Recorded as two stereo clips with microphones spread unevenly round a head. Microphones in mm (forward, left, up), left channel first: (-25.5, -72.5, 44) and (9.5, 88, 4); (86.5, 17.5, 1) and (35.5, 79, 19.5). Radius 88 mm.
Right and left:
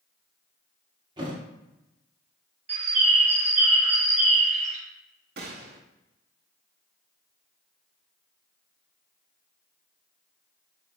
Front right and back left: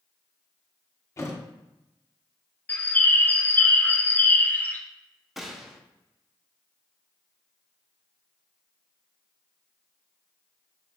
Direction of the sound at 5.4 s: 60° left.